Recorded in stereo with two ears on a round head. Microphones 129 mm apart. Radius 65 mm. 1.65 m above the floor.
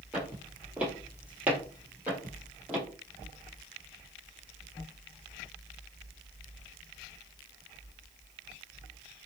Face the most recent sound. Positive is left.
turn(degrees=-15)  # may be behind; listen again after turning